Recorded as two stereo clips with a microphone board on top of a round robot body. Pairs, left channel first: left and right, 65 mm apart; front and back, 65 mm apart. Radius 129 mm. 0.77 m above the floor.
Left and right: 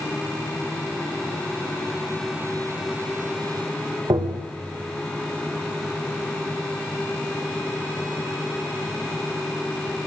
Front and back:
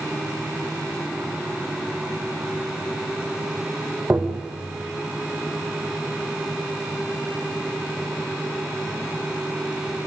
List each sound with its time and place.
4.1 s tapping: 110° right, 2.5 m